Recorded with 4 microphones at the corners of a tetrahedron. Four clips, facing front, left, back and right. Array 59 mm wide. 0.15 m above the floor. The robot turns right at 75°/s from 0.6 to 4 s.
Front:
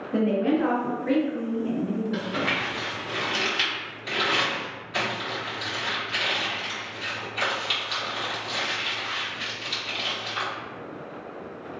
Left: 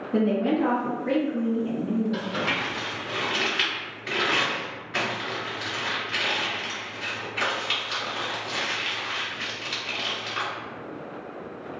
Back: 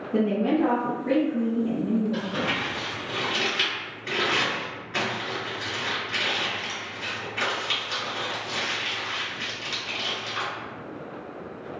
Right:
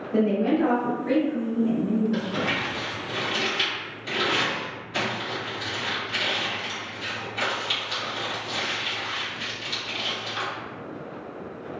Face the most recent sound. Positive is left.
turn(degrees=120)